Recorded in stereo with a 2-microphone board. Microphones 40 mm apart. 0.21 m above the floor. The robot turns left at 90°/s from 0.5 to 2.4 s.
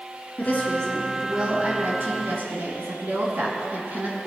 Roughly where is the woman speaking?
Ahead left.